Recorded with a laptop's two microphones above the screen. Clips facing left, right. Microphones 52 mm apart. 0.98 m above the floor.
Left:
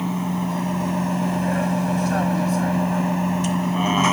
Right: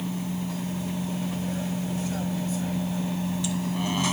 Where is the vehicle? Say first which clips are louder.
Left 7 dB; 55° left (ahead or behind); by 4.1 s 45° left (ahead or behind).